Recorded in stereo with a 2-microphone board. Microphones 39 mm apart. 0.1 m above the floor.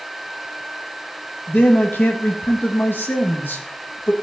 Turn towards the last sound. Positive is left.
turn(degrees=70)  # may be behind; listen again after turning